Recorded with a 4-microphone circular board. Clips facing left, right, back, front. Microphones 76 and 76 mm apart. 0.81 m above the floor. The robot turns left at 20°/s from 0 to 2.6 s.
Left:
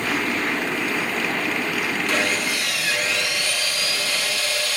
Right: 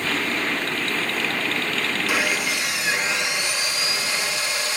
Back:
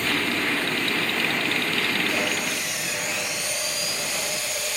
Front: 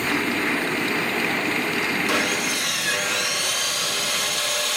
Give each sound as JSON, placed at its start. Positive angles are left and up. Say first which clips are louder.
{"t": 2.1, "sound": "sawing", "louder": "even, front 3 dB", "azimuth_deg": -10, "distance_m": 6.5}